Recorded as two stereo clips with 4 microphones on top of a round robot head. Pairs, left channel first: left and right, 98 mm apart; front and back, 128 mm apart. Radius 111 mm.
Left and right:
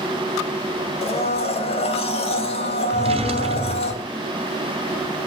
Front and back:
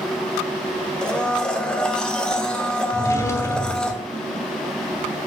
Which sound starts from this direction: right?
A drawer, at 2.9 s.